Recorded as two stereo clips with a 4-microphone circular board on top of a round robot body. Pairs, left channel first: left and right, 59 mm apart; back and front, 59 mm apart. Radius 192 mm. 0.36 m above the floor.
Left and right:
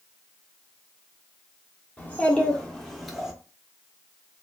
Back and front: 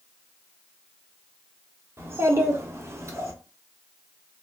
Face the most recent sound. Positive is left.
turn(degrees=-10)